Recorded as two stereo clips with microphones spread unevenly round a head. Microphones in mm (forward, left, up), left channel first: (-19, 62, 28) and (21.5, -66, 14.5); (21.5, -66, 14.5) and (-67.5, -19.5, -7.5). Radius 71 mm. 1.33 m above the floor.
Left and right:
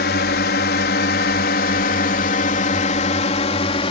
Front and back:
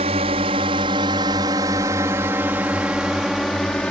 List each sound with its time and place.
0.0 s a drone: 115° left; by 3.9 s 55° left